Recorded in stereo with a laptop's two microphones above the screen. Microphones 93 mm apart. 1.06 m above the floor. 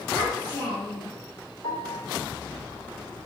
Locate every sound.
0.1 s a child speaking: 60° left (ahead or behind), 3 m
1.6 s a piano: 75° left (ahead or behind), 3 m